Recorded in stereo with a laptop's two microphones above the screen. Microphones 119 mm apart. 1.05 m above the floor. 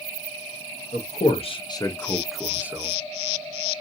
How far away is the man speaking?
About 0.7 m.